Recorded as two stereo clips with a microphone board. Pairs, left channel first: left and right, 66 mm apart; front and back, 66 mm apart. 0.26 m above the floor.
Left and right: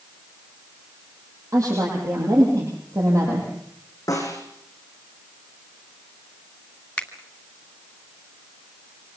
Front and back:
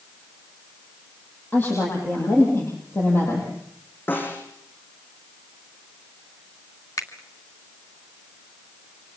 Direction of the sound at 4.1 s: 60° left.